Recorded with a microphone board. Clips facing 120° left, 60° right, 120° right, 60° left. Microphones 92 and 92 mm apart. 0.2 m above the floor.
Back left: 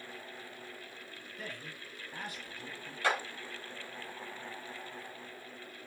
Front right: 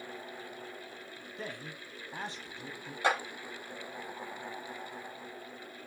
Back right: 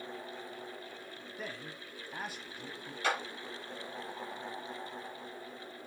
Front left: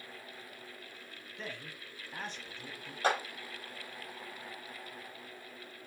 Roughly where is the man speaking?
Ahead right.